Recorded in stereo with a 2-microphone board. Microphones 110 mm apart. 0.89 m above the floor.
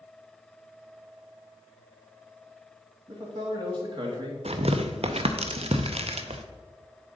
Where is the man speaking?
50° right (ahead or behind), 1.6 m.